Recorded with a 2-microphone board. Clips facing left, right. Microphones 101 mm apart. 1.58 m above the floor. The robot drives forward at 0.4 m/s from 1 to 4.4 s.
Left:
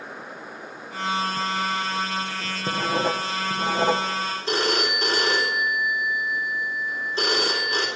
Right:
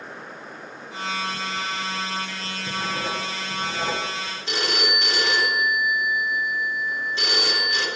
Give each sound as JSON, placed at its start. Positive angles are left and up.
{"t": 2.7, "sound": "writing", "side_deg": 50, "distance_m": 1.3}
{"t": 4.5, "sound": "a phone ringing", "side_deg": 35, "distance_m": 4.0}